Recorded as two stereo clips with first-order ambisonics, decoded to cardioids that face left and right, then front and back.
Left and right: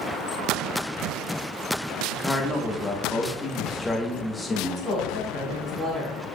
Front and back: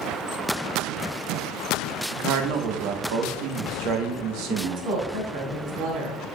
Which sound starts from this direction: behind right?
A woman speaking, at 4.5 s.